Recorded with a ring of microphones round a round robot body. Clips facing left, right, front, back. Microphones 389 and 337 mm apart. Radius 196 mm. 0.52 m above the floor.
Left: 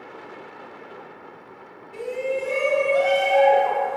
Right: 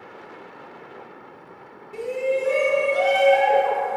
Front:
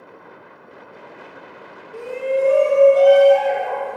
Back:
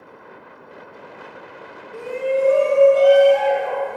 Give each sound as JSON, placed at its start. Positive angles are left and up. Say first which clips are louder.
{"t": 1.9, "sound": "a shout", "louder": "right 3 dB, even", "azimuth_deg": -100, "distance_m": 1.3}